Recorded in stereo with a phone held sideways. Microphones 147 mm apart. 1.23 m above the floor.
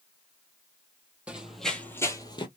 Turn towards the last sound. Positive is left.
turn(degrees=35)  # may be behind; listen again after turning